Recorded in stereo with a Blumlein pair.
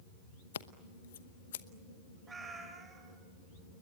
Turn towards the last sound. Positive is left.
turn(degrees=-15)